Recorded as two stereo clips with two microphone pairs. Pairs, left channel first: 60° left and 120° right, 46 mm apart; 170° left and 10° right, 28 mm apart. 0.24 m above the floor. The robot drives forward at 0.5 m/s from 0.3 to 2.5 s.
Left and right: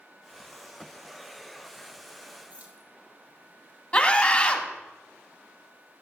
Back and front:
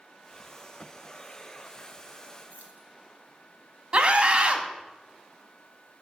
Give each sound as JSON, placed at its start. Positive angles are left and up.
{"t": 2.5, "sound": "keys jangling", "azimuth_deg": -170, "distance_m": 3.0}
{"t": 3.9, "sound": "a scream", "azimuth_deg": 10, "distance_m": 1.4}